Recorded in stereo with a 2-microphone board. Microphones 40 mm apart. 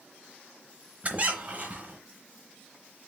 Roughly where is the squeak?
Right.